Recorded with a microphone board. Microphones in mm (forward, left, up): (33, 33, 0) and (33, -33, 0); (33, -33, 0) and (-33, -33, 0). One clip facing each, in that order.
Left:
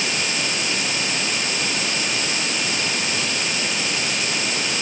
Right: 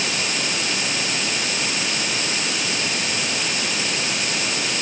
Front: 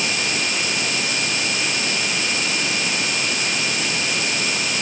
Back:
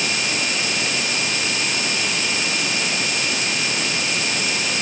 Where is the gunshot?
I don't hear a gunshot.